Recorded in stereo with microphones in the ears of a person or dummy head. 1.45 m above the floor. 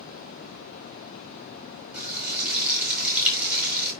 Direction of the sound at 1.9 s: 5° right (ahead or behind).